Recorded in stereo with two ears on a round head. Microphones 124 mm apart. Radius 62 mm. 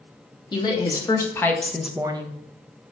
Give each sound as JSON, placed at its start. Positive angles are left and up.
{"t": 0.5, "sound": "a woman speaking", "side_deg": 35, "distance_m": 2.0}